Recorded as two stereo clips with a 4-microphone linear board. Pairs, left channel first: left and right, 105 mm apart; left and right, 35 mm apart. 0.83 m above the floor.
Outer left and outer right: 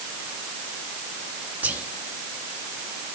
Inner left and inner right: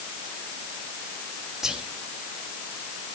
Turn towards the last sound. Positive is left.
turn(degrees=-15)  # may be behind; listen again after turning